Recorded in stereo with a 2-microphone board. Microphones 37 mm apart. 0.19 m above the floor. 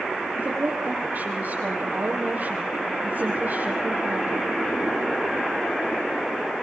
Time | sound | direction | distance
0.3 | a woman speaking | 55° right (ahead or behind) | 7 m